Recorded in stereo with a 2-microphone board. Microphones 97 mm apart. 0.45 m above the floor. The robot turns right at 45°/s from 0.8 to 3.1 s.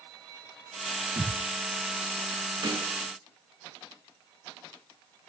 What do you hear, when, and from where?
1.2 s a thud: 45° right (ahead or behind), 9.5 m; by 1.4 s 60° right (ahead or behind), 9.5 m
2.6 s a snare drum: 50° right (ahead or behind), 5.5 m; by 2.9 s 60° right (ahead or behind), 5.5 m